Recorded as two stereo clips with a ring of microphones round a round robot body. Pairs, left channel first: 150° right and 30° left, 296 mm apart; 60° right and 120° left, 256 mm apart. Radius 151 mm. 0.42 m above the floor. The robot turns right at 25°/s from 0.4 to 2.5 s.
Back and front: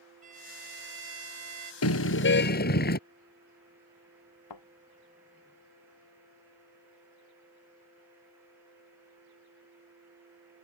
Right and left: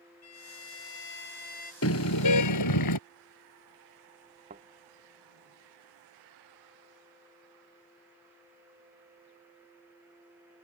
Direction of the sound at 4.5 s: 170° right.